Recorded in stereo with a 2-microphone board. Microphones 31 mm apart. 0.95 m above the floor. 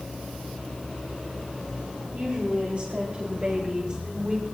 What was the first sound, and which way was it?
A woman speaking, 50° right (ahead or behind).